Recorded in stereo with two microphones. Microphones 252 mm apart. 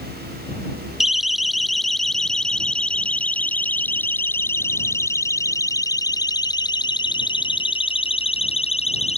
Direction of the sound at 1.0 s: Centre (ahead or behind).